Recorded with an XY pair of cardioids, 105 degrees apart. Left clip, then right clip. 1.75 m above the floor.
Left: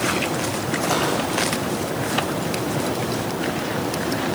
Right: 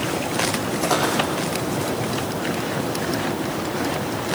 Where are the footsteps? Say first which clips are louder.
Right 1 dB; 15° right, 5.5 m.